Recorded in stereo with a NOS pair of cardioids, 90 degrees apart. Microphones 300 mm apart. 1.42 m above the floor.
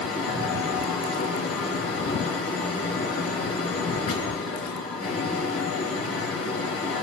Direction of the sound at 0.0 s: 55° left.